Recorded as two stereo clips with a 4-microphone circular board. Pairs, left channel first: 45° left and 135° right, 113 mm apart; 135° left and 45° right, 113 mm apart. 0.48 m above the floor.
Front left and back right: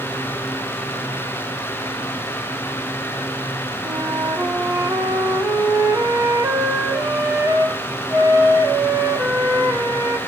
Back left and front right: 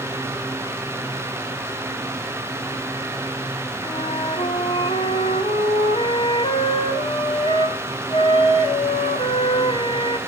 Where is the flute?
160° left, 1.1 m.